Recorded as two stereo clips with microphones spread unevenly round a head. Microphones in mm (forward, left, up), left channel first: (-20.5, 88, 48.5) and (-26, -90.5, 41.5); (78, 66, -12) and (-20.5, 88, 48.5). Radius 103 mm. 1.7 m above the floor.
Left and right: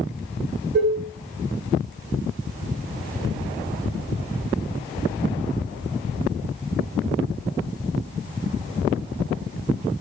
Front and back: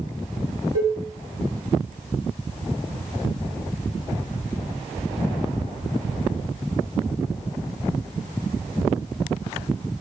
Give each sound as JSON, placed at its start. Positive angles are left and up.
{"t": 0.7, "sound": "dishes clattering", "azimuth_deg": -30, "distance_m": 2.5}